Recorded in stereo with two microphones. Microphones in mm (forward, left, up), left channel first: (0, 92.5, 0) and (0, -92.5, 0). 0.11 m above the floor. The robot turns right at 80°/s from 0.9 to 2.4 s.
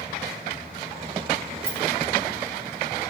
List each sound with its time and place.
1.6 s a rattle: 15° right (ahead or behind), 1.7 m; by 1.8 s 25° right (ahead or behind), 1.7 m